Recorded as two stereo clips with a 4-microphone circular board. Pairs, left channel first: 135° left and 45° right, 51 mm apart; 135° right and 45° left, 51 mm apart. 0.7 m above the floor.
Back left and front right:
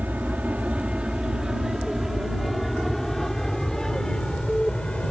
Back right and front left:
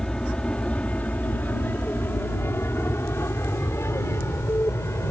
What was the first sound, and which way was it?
An aircraft, 70° right.